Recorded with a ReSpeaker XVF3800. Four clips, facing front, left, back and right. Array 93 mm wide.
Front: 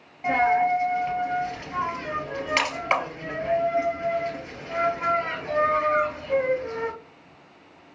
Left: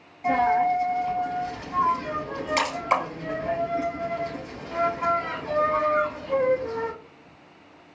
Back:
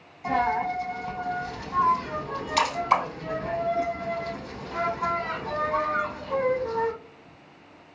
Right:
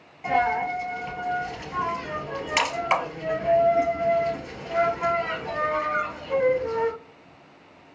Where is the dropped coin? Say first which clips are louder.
Left 2 dB, front 4 dB; 25° right, 1.8 m.